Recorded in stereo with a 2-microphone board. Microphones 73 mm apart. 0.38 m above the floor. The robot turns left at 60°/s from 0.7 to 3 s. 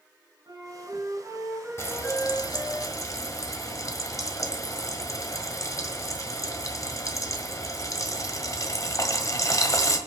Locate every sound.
0.5 s a flute: 110° right, 4 m; by 2.8 s 125° left, 4 m
1.8 s frying: 40° left (ahead or behind), 1.5 m; by 10.0 s 50° left (ahead or behind), 1.5 m